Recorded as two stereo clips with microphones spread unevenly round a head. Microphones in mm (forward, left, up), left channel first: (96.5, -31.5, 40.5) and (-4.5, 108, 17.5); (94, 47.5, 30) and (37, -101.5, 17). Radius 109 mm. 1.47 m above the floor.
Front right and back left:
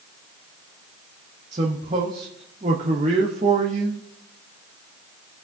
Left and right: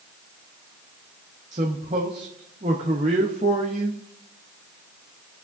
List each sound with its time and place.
1.5 s a man speaking: 170° right, 0.7 m